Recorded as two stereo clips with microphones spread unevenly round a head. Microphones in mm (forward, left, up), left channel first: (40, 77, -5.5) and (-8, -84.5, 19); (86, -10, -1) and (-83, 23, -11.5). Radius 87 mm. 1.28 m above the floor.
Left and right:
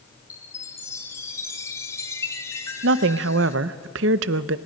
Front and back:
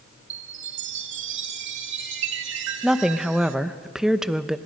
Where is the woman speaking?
105° right, 0.7 m.